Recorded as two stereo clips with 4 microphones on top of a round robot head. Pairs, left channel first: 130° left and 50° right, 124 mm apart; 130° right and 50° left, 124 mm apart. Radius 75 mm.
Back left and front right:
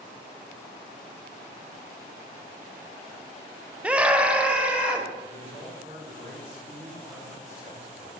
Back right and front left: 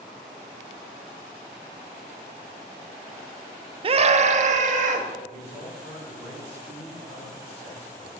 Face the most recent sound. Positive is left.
turn(degrees=-85)